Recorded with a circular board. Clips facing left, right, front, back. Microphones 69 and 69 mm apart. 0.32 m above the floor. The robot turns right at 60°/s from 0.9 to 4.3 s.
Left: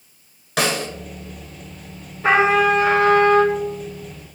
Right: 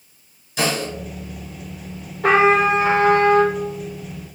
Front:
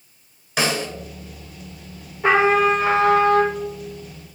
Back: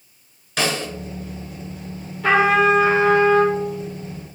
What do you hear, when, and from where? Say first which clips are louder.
0.6 s a snare drum: left 1 dB, front 1 dB; 80° left, 1.7 m
2.2 s a trumpet: right 1 dB, back 1 dB; 70° right, 3 m; by 3.5 s 10° left, 3 m